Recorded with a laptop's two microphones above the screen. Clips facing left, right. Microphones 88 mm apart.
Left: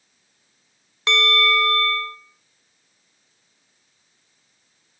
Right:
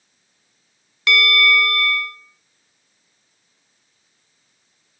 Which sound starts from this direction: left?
A bell, at 1.1 s.